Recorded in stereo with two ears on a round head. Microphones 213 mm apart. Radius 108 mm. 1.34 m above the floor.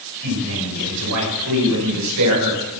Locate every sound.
0.2 s a man speaking: 85° right, 6.5 m; by 2.8 s 80° right, 5 m